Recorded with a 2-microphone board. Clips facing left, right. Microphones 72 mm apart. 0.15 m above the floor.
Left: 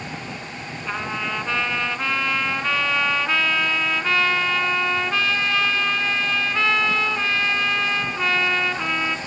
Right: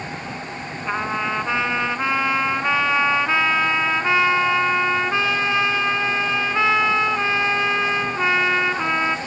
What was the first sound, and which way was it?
A trumpet, 20° right (ahead or behind).